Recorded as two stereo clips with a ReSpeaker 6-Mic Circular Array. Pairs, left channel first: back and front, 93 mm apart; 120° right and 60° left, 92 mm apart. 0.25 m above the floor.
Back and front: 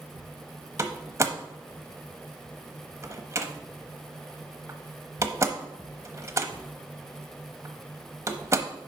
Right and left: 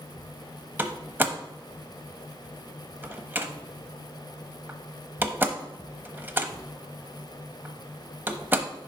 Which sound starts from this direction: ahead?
A door slam, at 0.8 s.